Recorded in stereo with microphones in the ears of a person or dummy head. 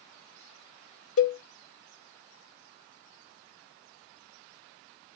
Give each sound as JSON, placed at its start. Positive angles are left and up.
{"t": 1.2, "sound": "a cowbell", "side_deg": 90, "distance_m": 1.6}